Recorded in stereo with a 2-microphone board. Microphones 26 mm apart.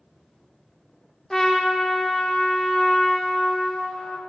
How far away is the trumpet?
About 0.8 m.